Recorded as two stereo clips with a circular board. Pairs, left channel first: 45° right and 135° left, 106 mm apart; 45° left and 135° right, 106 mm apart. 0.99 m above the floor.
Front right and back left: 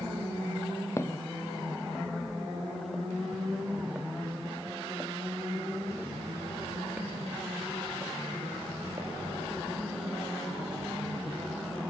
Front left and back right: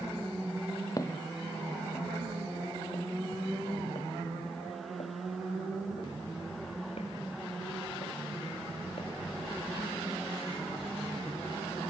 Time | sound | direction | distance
1.0 | footsteps | 5° left | 1.3 m